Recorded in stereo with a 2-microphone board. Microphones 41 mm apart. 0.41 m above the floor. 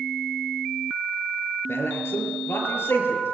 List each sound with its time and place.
1.7 s a man speaking: 75° left (ahead or behind), 6.5 m